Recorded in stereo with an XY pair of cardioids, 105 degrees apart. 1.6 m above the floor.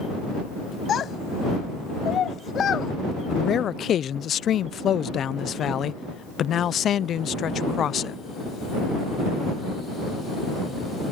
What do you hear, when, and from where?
0.9 s a child speaking: 55° left; by 2.9 s 50° left
3.3 s a man speaking: 55° left